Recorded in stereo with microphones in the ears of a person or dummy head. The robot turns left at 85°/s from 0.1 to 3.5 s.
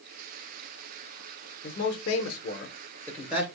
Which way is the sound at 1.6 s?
45° left (ahead or behind).